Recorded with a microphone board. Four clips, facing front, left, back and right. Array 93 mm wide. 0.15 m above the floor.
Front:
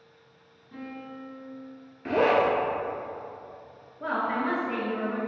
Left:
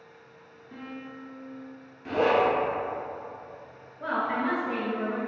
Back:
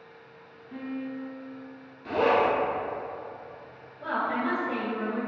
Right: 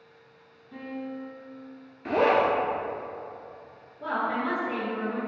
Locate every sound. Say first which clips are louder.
0.7 s a piano: right 5 dB, back 5 dB; 130° left, 1.5 m
2.0 s a zipper: right 1 dB, front 1 dB; 40° right, 0.7 m
4.0 s a woman speaking: even, front 1 dB; 45° left, 1.9 m